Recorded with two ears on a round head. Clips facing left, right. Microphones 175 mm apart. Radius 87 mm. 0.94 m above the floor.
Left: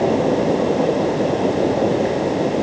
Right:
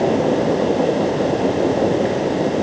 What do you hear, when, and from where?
Only background noise.